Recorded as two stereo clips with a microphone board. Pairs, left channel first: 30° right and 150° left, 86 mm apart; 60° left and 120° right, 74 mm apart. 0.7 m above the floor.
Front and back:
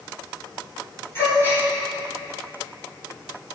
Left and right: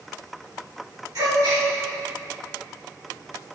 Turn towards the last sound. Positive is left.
turn(degrees=-90)